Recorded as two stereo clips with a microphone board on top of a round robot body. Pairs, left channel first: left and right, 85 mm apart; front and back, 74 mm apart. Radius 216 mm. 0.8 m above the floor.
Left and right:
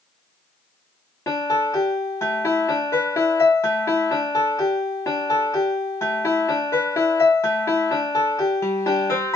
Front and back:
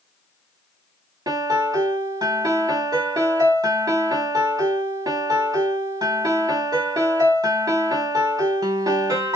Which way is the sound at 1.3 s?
145° left.